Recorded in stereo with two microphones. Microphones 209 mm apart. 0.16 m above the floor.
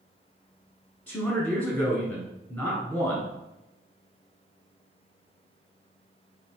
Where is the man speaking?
5° left (ahead or behind), 1.2 m.